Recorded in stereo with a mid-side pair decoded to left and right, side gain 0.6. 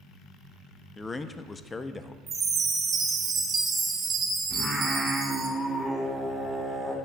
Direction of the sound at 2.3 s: 35° right.